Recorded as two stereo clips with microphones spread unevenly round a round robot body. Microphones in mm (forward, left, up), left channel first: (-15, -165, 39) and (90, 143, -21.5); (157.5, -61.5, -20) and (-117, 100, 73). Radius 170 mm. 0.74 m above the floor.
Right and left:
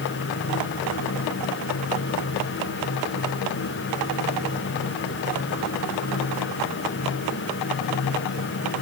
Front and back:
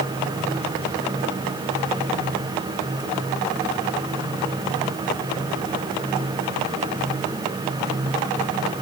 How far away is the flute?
I don't hear a flute.